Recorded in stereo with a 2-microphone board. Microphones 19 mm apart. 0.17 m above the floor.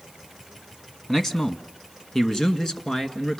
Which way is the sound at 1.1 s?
25° left (ahead or behind).